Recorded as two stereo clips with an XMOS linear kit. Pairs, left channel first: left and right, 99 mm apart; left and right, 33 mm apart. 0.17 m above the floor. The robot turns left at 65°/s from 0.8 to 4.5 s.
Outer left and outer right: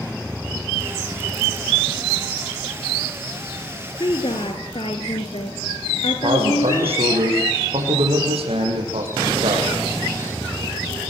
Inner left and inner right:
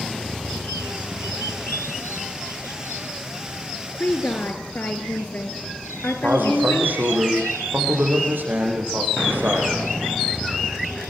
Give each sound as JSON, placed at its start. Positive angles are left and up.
{"t": 4.0, "sound": "a woman speaking", "azimuth_deg": 120, "distance_m": 3.0}
{"t": 6.2, "sound": "a man speaking", "side_deg": -80, "distance_m": 8.0}